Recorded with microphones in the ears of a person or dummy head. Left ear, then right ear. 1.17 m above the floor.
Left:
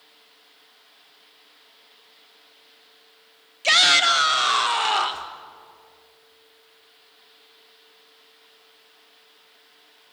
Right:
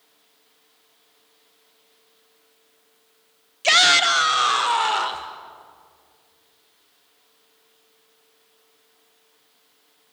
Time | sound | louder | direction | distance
3.6 | a shout | right 1 dB | 10° right (ahead or behind) | 1.0 m